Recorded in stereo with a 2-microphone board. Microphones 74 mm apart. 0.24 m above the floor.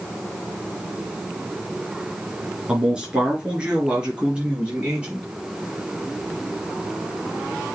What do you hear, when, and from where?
2.7 s a man speaking: 10° right (ahead or behind), 3.5 m; by 5.2 s 15° right (ahead or behind), 5.5 m